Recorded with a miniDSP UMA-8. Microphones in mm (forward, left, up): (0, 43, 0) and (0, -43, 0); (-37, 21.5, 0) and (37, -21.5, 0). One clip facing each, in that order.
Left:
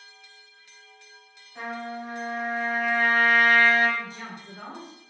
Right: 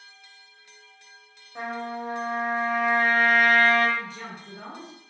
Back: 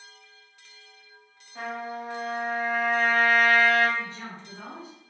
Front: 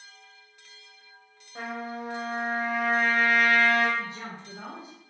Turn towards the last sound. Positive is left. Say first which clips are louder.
# even, even
turn(degrees=-5)